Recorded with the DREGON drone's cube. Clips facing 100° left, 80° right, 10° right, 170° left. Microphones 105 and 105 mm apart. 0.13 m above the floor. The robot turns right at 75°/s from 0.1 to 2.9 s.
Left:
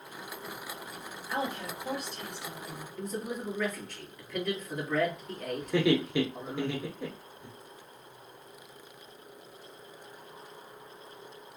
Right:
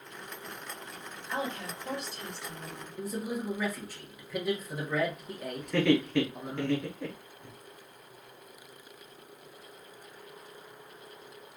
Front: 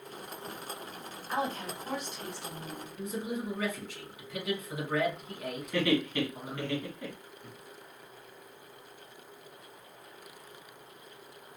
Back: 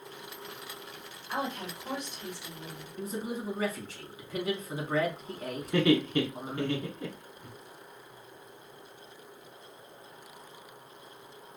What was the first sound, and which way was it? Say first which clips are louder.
A woman speaking: left 1 dB, front 1 dB; 60° left.